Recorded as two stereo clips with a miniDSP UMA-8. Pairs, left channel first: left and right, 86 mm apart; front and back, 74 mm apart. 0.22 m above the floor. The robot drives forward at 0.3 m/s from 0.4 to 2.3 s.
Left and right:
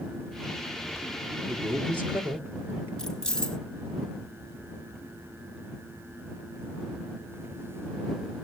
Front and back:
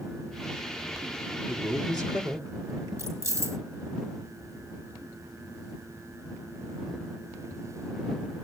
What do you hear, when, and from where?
1.5 s a man speaking: 150° right, 3 m; by 2.9 s 155° right, 3.5 m
3.0 s keys jangling: 170° left, 1.3 m